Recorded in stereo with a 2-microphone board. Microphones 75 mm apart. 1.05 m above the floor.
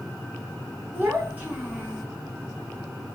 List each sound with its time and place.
0.9 s a child speaking: 25° right (ahead or behind), 2.5 m